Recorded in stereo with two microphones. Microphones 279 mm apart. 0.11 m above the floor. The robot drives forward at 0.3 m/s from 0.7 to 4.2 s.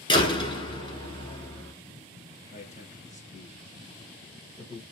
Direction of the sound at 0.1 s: 20° left (ahead or behind).